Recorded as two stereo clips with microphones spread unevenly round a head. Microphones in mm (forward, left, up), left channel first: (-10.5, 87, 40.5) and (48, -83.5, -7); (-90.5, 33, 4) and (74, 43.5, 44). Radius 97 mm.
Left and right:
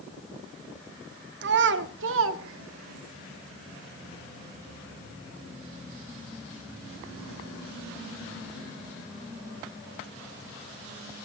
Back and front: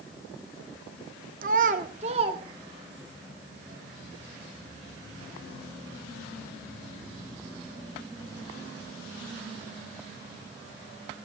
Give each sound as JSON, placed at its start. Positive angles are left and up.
{"t": 1.4, "sound": "a child speaking", "azimuth_deg": -40, "distance_m": 1.6}